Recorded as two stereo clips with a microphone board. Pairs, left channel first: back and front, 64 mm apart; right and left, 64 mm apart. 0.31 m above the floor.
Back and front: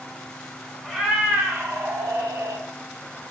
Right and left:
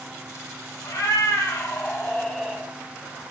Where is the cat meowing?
85° right, 1.6 m; by 2.6 s 10° left, 1.3 m.